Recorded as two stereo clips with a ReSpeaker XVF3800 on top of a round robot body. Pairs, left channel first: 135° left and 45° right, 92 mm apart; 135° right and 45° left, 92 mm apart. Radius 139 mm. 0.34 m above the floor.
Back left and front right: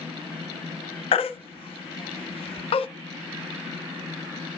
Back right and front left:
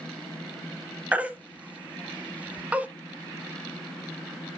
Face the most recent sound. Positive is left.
turn(degrees=120)